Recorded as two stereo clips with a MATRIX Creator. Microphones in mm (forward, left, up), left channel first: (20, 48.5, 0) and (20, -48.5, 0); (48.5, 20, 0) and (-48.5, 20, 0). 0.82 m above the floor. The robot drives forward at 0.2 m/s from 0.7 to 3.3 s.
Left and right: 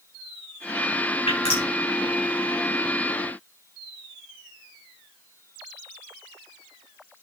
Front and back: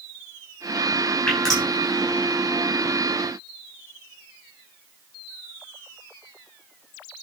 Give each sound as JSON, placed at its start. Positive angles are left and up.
{"t": 1.3, "sound": "dripping", "azimuth_deg": 85, "distance_m": 5.0}